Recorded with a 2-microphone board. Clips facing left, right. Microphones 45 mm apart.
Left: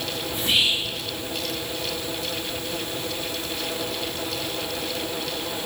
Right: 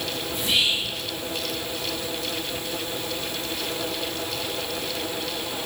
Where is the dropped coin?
No dropped coin in this recording.